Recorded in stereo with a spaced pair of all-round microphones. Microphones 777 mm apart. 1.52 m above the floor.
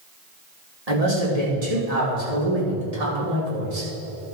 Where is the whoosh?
I don't hear a whoosh.